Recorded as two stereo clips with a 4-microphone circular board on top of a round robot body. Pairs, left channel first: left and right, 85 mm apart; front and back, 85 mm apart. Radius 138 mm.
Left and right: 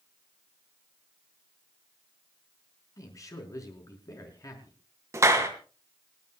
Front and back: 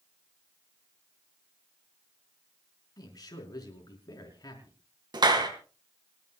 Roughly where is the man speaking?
Ahead left.